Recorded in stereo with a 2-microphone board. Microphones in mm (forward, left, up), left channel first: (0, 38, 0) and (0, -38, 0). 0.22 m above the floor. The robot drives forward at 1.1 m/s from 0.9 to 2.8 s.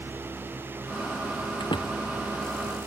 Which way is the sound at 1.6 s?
85° left.